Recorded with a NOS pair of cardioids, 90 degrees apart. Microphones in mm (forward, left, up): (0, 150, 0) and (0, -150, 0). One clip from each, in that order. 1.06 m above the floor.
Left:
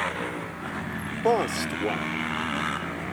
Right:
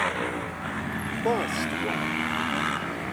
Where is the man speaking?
25° left.